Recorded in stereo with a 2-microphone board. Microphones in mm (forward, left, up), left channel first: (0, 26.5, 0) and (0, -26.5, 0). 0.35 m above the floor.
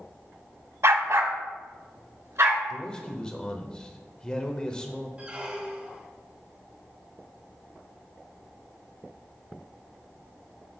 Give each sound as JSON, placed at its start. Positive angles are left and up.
{"t": 0.8, "sound": "a dog barking", "side_deg": -60, "distance_m": 0.6}
{"t": 2.7, "sound": "a man speaking", "side_deg": 15, "distance_m": 0.8}
{"t": 5.2, "sound": "a squeak", "side_deg": -20, "distance_m": 0.8}